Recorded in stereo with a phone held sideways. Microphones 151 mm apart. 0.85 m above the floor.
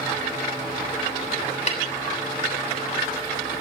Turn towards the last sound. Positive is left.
turn(degrees=45)  # may be behind; listen again after turning